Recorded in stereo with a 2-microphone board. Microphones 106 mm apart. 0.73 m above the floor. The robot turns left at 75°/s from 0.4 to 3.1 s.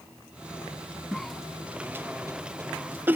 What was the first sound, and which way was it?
A cough, 5° left (ahead or behind).